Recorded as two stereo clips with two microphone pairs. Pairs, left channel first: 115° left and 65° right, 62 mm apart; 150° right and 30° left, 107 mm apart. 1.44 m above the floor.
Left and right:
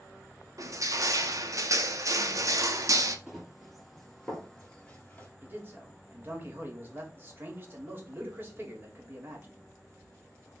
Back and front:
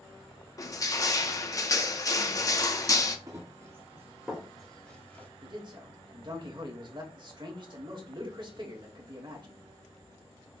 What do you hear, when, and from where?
0.6 s crushing: 95° right, 0.6 m
3.3 s running footsteps: 15° left, 1.7 m; by 5.3 s 160° left, 1.6 m
5.4 s a man speaking: 10° right, 1.3 m